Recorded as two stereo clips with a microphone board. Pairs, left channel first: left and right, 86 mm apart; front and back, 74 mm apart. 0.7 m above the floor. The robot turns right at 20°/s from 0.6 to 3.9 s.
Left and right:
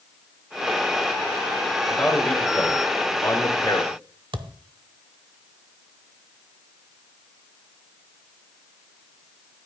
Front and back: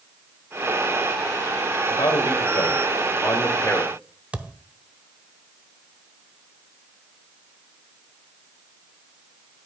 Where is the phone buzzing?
No phone buzzing in this recording.